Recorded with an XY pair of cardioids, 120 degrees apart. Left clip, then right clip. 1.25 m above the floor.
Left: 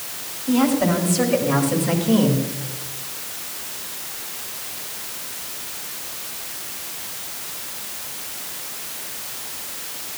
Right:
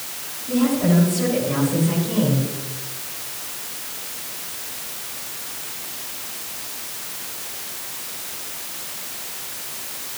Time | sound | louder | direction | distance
0.5 | a woman speaking | left 2 dB | 60° left | 8 m